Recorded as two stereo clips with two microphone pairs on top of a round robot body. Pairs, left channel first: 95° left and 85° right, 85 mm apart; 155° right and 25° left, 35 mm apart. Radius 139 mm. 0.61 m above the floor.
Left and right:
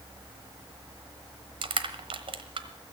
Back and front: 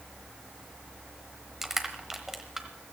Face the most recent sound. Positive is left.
turn(degrees=-60)